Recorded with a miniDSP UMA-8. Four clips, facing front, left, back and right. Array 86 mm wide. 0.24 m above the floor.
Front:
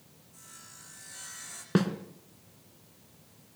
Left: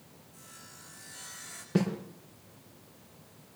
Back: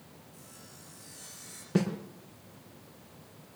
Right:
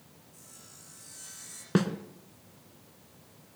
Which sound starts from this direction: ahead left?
Sawing, at 0.3 s.